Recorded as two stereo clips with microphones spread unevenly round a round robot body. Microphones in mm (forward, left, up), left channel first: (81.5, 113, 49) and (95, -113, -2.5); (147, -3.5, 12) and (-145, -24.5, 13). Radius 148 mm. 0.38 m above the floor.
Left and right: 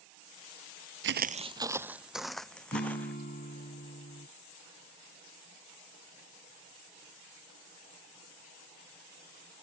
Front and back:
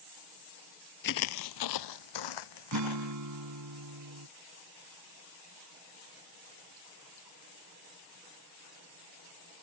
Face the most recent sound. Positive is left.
turn(degrees=155)